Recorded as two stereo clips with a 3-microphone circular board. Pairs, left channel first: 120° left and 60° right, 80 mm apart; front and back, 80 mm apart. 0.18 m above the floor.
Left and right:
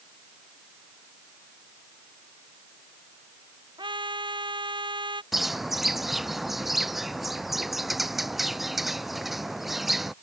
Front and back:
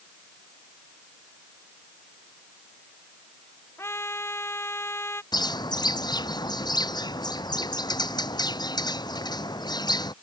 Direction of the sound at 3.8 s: 60° right.